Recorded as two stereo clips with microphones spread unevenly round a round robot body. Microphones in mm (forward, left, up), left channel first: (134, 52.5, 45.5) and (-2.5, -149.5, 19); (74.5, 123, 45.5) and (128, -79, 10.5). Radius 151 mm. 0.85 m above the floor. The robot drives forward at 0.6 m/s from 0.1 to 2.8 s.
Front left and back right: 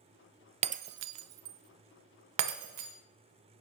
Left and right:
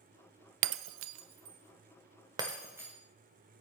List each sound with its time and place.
0.6 s breaking glass: 60° right, 0.5 m; by 2.9 s 160° right, 1.2 m